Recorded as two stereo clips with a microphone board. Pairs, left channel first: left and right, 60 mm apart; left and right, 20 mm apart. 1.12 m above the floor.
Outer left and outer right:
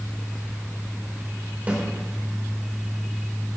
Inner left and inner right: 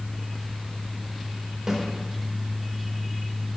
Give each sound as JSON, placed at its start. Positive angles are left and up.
{"t": 1.7, "sound": "a snare drum", "side_deg": -25, "distance_m": 4.0}